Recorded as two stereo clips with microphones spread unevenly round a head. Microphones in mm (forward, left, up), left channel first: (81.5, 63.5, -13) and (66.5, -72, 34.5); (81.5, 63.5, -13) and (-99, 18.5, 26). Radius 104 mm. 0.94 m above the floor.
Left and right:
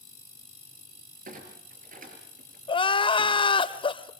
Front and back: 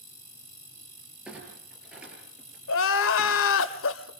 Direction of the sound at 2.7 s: 25° left.